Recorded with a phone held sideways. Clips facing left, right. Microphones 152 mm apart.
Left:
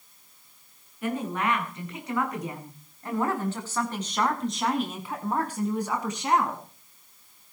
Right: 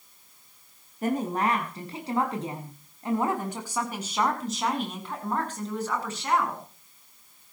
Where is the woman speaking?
45° right (ahead or behind), 8 m; by 6.6 s 25° left (ahead or behind), 7.5 m.